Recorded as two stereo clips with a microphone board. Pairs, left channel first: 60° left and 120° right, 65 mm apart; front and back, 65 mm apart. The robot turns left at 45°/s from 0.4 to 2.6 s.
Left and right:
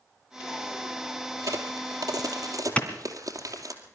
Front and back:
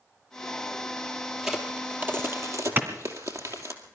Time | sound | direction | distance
1.4 | a crack | 95° right | 2.5 m
2.8 | a clap | 130° left | 2 m